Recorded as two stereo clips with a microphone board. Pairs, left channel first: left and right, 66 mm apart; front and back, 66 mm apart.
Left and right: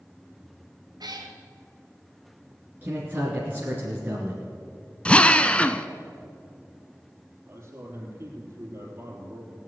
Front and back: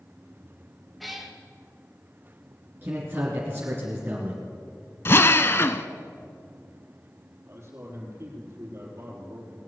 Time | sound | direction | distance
1.0 | a cat meowing | 90° right | 2.5 m
2.8 | a man speaking | 140° right | 2.5 m
5.0 | a drill | 25° left | 0.6 m
7.5 | a man speaking | 140° right | 4 m